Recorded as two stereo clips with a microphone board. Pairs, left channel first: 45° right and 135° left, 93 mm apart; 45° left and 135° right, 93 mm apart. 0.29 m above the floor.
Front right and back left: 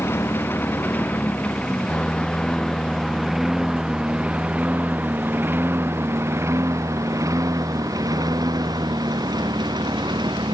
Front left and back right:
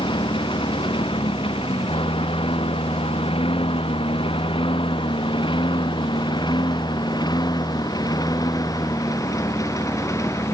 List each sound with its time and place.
0.0 s a lawn mower: 20° left; by 10.5 s 100° left